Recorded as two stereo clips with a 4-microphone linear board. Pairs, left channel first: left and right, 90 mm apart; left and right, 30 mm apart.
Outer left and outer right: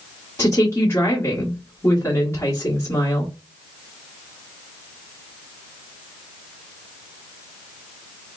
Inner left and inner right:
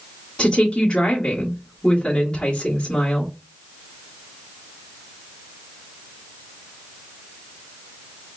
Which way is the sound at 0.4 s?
30° left (ahead or behind).